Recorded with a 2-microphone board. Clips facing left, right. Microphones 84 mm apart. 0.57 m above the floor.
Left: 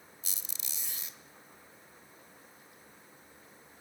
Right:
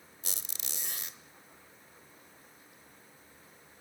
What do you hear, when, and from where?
0.2 s a squeak: 65° right (ahead or behind), 0.8 m